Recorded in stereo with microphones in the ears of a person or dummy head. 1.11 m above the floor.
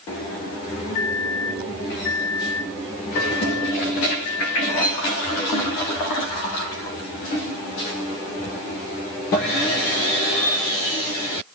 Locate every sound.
0.9 s a microwave: 70° left (ahead or behind), 0.7 m